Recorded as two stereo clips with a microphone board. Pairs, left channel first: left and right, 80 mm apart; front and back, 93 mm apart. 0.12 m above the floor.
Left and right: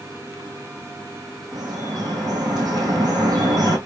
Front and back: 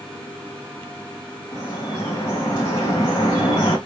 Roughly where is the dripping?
Ahead right.